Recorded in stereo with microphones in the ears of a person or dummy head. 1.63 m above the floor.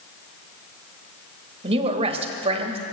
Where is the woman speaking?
35° right (ahead or behind), 1.8 m.